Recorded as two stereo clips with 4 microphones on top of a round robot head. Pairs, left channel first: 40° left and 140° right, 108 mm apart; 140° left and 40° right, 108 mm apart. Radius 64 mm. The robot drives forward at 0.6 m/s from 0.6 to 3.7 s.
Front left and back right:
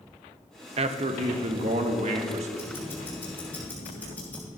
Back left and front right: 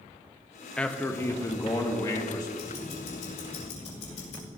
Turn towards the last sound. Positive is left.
turn(degrees=115)